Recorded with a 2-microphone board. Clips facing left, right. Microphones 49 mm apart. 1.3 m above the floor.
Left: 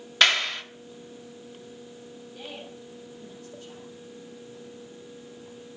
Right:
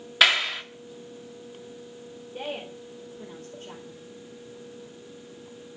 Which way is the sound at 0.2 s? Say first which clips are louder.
Right 1 dB; 5° right (ahead or behind).